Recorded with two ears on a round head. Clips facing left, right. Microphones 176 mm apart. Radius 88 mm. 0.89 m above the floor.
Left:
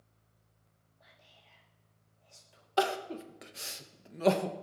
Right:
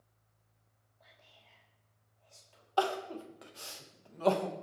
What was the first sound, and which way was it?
Whispering, 10° left (ahead or behind).